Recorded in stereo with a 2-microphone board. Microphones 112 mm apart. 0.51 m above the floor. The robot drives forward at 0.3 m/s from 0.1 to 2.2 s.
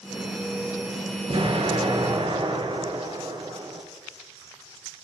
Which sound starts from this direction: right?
An explosion, at 1.3 s.